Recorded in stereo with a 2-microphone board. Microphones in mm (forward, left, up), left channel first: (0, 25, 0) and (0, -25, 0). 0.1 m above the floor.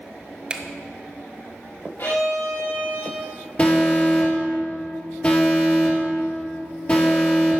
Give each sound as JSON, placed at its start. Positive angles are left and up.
{"t": 0.5, "sound": "a finger snap", "side_deg": -20, "distance_m": 1.0}
{"t": 2.0, "sound": "a violin", "side_deg": 60, "distance_m": 4.0}
{"t": 3.6, "sound": "an alarm", "side_deg": 25, "distance_m": 3.0}